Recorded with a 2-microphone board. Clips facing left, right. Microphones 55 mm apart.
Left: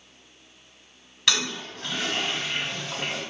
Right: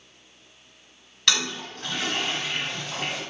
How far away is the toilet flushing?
About 1.7 m.